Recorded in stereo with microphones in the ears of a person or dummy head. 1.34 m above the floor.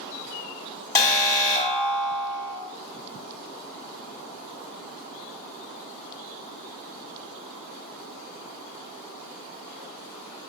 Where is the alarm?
20° left (ahead or behind), 0.8 m.